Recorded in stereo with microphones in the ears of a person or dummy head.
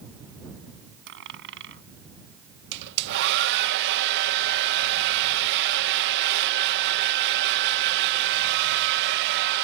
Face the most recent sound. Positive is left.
turn(degrees=-60)  # may be behind; listen again after turning